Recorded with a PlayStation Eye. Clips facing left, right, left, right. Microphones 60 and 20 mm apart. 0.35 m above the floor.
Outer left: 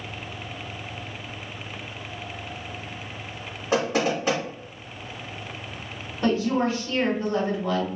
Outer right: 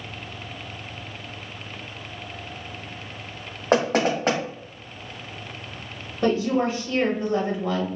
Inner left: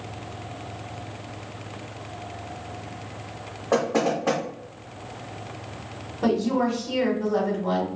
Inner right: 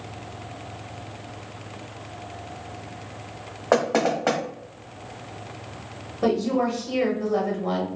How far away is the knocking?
About 1.0 m.